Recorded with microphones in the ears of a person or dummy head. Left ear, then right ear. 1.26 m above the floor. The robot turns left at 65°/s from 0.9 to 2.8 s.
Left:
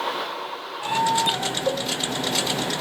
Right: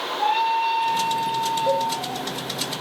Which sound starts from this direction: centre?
A cowbell, at 1.7 s.